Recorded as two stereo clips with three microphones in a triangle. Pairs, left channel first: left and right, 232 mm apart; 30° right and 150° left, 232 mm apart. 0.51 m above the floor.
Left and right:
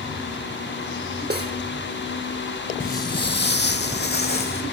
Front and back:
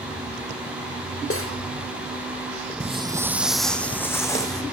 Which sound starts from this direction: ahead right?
Cutlery clinking, at 1.3 s.